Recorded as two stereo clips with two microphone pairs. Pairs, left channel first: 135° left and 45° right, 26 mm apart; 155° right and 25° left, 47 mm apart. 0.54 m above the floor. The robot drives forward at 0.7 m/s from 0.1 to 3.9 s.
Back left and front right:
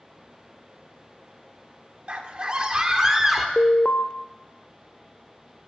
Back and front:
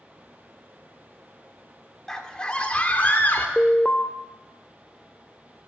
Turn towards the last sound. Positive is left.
turn(degrees=145)